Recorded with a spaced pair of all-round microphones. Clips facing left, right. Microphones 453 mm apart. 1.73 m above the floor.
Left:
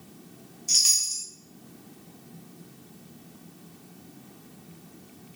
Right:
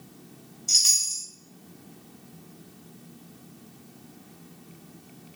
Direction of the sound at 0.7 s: 5° left (ahead or behind).